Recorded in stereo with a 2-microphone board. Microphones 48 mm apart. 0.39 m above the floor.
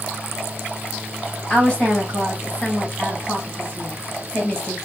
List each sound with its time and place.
1.5 s a woman speaking: 15° left (ahead or behind), 1.6 m